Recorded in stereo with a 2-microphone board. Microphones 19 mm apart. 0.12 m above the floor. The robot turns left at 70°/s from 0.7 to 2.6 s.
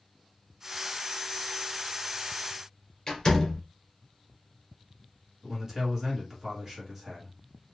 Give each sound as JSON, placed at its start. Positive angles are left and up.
{"t": 3.1, "sound": "a door slam", "side_deg": 30, "distance_m": 1.6}
{"t": 5.4, "sound": "a man speaking", "side_deg": -20, "distance_m": 1.5}